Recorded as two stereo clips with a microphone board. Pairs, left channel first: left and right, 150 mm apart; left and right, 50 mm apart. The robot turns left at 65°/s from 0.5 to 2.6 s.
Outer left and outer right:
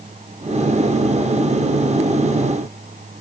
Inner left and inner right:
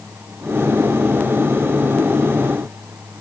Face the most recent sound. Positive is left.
No sound to turn to.